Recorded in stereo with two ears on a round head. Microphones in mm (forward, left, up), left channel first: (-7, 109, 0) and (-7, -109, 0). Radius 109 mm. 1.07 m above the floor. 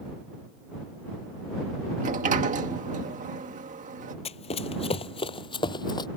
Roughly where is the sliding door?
Right.